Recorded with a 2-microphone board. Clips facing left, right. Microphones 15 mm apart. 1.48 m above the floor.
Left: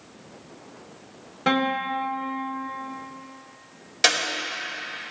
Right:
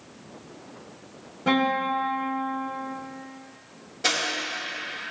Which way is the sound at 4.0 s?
65° left (ahead or behind).